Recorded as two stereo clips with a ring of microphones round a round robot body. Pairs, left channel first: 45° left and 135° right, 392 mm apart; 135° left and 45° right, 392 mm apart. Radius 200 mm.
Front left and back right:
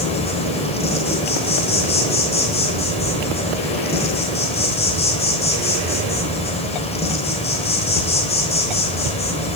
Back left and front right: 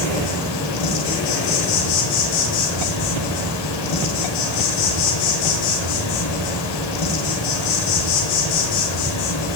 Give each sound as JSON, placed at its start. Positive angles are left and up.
{"t": 0.0, "sound": "an insect", "azimuth_deg": 120, "distance_m": 3.5}